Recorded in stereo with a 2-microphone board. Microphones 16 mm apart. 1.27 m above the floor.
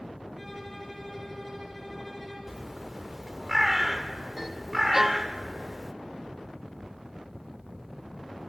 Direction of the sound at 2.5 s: 15° right (ahead or behind).